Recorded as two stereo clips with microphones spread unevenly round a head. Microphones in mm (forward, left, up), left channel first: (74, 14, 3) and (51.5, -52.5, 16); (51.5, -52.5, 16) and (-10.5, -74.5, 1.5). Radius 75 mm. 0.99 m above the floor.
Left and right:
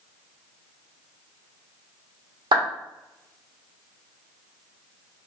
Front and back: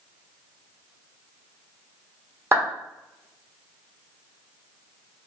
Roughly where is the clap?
Right.